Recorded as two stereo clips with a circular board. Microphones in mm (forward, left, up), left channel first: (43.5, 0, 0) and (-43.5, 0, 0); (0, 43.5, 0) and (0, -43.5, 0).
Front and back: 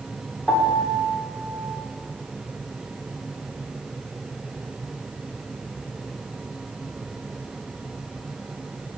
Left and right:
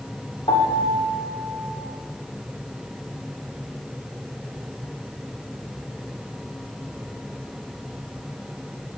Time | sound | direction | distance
0.5 | a piano | 75° left | 2.5 m